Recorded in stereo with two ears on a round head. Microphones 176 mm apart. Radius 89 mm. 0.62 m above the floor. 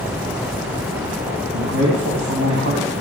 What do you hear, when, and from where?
1.5 s a man speaking: 80° right, 4 m